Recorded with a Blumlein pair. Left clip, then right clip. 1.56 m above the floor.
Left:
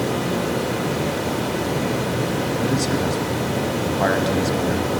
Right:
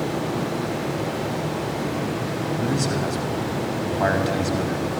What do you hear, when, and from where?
0.0 s running water: 60° left, 2.5 m
2.6 s a man speaking: 10° left, 1.0 m